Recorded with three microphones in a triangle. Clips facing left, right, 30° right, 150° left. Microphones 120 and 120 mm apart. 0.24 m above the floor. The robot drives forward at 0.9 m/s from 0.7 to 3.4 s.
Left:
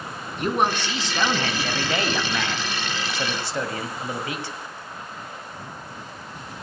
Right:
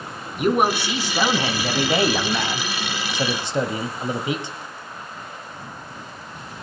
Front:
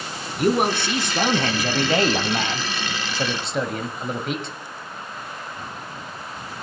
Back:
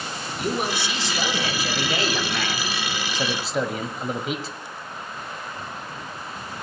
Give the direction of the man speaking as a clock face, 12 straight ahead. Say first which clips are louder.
Right 4 dB, front 7 dB; 12 o'clock.